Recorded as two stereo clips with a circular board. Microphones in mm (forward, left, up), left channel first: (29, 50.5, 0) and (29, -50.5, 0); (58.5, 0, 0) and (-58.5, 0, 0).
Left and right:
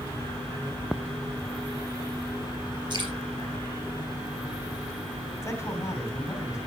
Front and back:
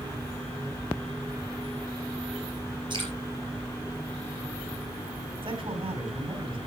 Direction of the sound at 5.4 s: 145° left.